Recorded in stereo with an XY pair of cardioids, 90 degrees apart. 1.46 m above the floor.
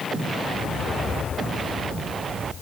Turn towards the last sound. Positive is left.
No sound to turn to.